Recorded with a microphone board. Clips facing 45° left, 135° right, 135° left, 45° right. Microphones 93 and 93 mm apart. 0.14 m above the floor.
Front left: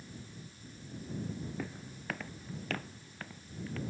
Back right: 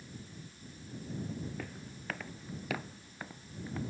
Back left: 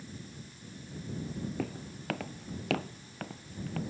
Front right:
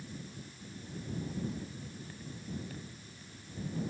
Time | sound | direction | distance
1.6 | footsteps | 125° left | ?